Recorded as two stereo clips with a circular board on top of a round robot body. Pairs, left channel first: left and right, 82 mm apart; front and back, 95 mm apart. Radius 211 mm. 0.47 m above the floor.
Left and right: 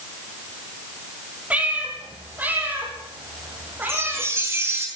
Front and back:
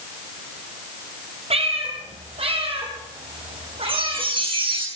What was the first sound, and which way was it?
A cat meowing, 165° right.